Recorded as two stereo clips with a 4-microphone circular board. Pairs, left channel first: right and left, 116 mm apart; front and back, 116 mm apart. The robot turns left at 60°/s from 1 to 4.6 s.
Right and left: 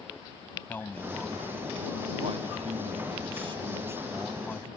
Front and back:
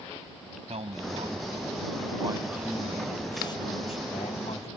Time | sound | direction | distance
0.7 | a man speaking | 160° right | ?